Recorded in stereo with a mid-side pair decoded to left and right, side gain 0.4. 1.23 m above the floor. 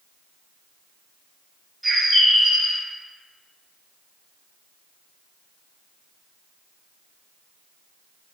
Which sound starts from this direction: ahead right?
A bird, at 1.8 s.